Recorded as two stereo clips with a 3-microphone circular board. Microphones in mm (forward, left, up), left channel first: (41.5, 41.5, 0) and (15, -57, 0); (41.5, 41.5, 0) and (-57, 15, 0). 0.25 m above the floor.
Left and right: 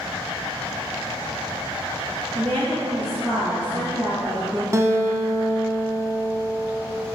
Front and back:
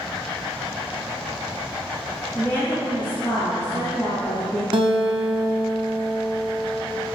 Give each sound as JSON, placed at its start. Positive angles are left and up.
{"t": 2.4, "sound": "a woman speaking", "azimuth_deg": -45, "distance_m": 2.5}
{"t": 4.7, "sound": "a guitar", "azimuth_deg": -160, "distance_m": 0.7}